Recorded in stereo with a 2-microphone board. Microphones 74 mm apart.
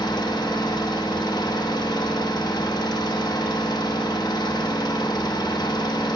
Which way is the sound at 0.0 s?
70° left (ahead or behind).